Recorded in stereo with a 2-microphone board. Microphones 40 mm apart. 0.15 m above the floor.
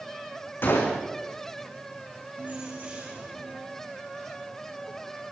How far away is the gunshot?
About 6.5 m.